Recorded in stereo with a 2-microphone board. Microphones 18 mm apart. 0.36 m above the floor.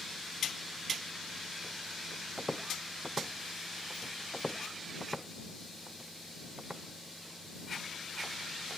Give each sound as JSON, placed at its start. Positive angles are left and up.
{"t": 2.4, "sound": "footsteps", "side_deg": -30}
{"t": 4.3, "sound": "footsteps", "side_deg": 45}